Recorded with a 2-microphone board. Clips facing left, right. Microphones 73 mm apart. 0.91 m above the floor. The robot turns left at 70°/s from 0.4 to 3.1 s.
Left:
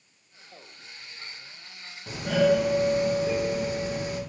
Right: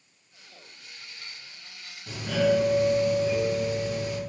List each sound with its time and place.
2.1 s a doorbell: 130° left, 2 m; by 4.2 s 60° left, 2 m